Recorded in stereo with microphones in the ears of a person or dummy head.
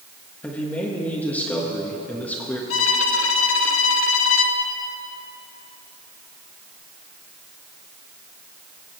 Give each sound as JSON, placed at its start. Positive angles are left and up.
{"t": 0.4, "sound": "a man speaking", "side_deg": 5, "distance_m": 1.5}
{"t": 2.7, "sound": "a violin", "side_deg": 65, "distance_m": 0.9}